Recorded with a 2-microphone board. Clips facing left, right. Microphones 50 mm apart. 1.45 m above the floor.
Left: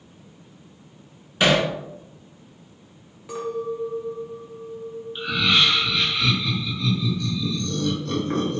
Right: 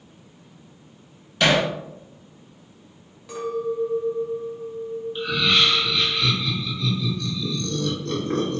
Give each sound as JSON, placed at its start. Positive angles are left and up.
{"t": 1.4, "sound": "hammering", "side_deg": 15, "distance_m": 1.8}
{"t": 3.3, "sound": "a clink", "side_deg": 15, "distance_m": 1.5}
{"t": 5.2, "sound": "laughter", "side_deg": 5, "distance_m": 2.0}